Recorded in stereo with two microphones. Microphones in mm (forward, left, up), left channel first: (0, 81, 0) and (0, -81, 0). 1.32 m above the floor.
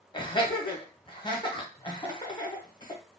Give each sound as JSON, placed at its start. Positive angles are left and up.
{"t": 0.1, "sound": "laughter", "side_deg": 30, "distance_m": 0.9}